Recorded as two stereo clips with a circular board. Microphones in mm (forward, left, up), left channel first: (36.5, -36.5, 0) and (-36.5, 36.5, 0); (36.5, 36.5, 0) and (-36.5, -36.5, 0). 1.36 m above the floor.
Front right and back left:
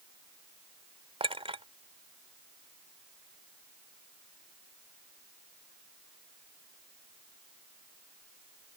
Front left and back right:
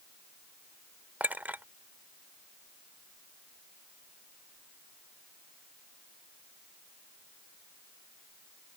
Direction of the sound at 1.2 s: 150° left.